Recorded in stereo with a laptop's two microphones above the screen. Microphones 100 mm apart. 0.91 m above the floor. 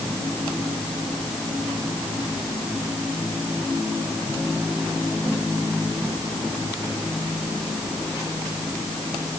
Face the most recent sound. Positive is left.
No sound to turn to.